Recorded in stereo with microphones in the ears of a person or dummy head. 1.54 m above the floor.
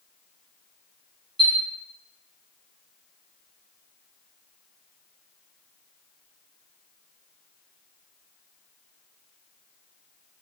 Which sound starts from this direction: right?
A chime, at 1.4 s.